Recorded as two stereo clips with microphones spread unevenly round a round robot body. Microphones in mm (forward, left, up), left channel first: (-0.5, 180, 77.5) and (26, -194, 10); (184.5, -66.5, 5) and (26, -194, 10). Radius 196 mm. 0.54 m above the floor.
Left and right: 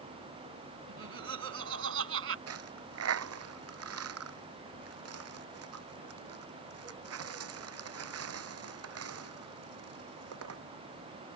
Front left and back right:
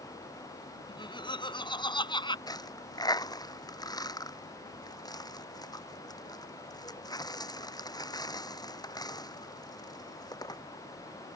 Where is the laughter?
30° right.